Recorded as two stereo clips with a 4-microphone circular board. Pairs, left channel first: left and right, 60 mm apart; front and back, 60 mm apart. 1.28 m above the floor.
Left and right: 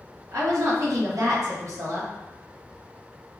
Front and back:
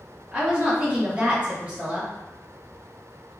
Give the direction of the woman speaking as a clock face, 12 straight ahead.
4 o'clock.